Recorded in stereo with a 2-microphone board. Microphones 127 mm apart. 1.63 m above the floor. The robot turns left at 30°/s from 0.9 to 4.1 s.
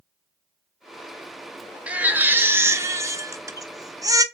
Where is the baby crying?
10° right (ahead or behind), 0.9 m; by 4.2 s 30° right (ahead or behind), 0.9 m.